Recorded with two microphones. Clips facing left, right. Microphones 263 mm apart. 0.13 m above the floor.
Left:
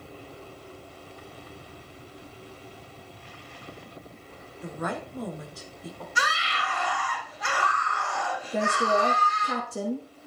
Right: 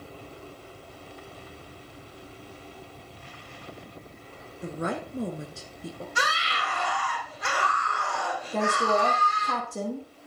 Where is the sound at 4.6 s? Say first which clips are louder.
Right 2 dB; 30° right (ahead or behind), 1.6 m.